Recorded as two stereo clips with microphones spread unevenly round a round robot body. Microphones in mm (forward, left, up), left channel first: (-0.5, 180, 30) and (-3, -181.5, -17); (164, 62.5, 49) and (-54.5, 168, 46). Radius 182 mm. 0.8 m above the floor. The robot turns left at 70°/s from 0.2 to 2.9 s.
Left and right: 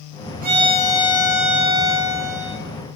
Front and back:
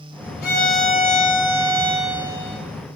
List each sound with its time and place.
0.4 s a violin: 45° right, 1.2 m; by 2.6 s 165° left, 1.2 m